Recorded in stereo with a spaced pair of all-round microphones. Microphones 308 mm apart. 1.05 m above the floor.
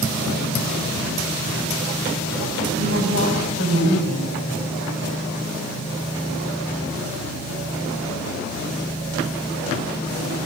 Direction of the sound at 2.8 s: 50° right (ahead or behind).